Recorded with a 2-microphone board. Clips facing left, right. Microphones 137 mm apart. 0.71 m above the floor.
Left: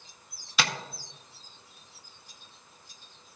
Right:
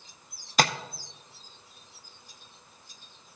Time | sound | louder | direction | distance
0.6 | tapping | right 6 dB | 45° right (ahead or behind) | 0.5 m